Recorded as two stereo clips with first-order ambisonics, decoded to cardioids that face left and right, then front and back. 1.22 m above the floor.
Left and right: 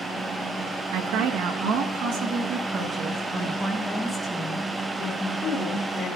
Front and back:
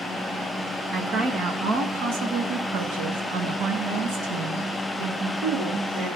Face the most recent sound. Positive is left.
turn(degrees=155)